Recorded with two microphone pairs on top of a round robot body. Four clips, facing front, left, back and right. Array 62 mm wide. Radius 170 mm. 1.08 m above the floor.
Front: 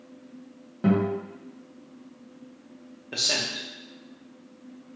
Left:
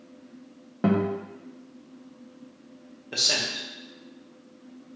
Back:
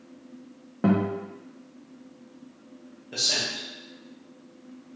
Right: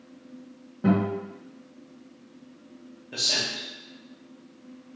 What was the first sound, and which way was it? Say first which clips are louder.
A guitar: even, even; 140° left.